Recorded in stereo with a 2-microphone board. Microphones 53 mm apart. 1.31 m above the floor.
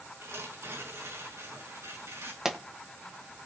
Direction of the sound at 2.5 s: 10° right (ahead or behind).